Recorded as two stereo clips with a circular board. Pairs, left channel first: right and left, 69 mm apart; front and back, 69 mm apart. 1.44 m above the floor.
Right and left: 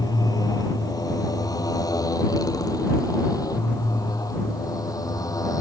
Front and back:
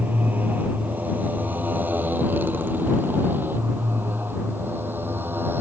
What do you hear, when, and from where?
0.0 s a motorcycle: 115° right; by 5.6 s 120° right